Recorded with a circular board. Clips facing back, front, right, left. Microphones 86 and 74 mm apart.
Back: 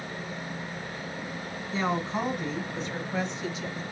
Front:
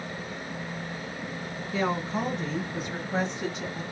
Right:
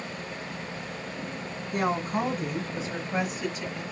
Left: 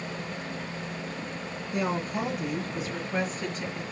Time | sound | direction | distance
1.7 | a woman speaking | 120° right | 2 m